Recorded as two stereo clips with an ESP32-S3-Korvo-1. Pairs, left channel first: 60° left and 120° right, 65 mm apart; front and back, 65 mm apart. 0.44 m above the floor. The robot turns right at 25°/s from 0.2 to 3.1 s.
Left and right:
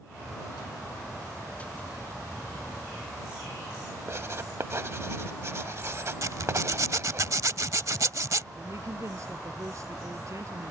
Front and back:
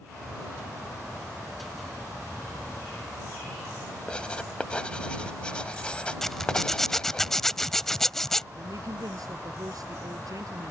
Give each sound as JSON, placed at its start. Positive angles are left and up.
{"t": 4.1, "sound": "writing", "azimuth_deg": -75}
{"t": 6.2, "sound": "a zipper", "azimuth_deg": -85}
{"t": 8.6, "sound": "a woman speaking", "azimuth_deg": -160}